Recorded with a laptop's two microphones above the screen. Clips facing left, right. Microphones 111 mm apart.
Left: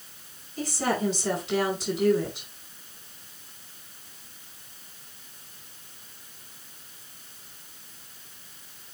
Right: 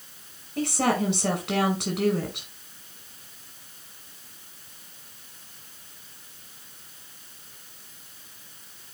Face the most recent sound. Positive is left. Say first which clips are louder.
# right 3 dB
turn(degrees=-75)  # may be behind; listen again after turning